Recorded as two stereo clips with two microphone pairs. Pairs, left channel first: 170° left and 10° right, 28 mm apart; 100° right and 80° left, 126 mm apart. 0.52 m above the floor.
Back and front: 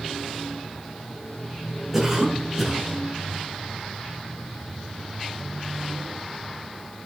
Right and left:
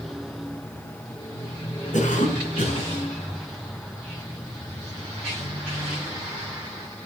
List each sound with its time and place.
1.9 s a cough: 90° right, 5 m